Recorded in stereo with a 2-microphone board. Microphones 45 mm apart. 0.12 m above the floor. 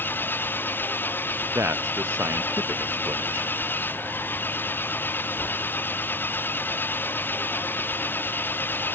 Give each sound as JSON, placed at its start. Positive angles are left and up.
{"t": 0.0, "sound": "an engine running", "side_deg": 45}
{"t": 1.6, "sound": "a man speaking", "side_deg": -75}